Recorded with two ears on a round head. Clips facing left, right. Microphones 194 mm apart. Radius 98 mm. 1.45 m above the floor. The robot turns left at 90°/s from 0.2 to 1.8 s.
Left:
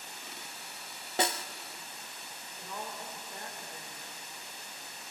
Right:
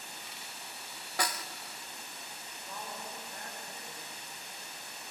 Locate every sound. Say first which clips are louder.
1.2 s a snare drum: left 5 dB; 20° left (ahead or behind), 0.6 m; by 1.4 s 25° left (ahead or behind), 0.6 m
2.6 s a woman speaking: left 2 dB; 90° left, 5 m